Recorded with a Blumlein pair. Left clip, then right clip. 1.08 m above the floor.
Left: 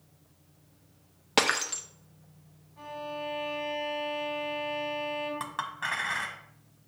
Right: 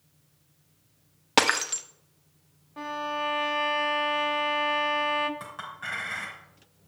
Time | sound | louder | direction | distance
1.4 | breaking glass | right 3 dB | 10° right | 0.5 m
2.8 | a violin | right 7 dB | 50° right | 0.8 m
5.4 | a clink | left 3 dB | 25° left | 1.3 m